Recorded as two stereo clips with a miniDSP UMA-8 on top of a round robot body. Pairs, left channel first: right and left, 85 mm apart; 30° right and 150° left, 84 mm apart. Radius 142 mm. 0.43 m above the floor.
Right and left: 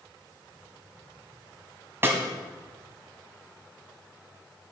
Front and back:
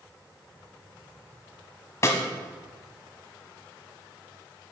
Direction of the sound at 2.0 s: 25° left.